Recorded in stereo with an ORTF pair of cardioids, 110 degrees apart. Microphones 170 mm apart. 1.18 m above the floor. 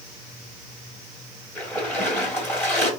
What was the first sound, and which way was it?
A splash, 15° left.